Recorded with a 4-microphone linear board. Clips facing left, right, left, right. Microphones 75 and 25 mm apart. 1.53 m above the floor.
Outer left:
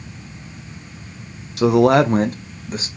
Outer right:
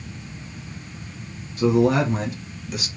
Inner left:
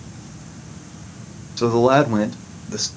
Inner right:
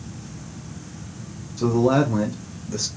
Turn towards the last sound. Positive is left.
turn(degrees=30)  # may be behind; listen again after turning